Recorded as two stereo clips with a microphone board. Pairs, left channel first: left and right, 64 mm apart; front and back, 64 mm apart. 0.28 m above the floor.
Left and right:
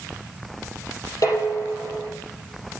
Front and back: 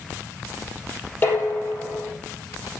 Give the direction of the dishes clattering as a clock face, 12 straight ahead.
10 o'clock.